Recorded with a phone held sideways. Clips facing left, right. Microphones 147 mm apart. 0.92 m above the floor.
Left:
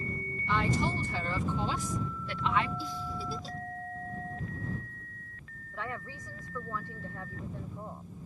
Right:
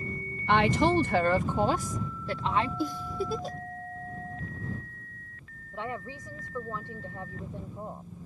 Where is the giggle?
55° right (ahead or behind).